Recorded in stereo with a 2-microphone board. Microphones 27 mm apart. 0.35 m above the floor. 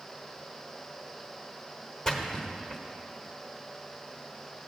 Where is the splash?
15° left (ahead or behind), 0.9 m.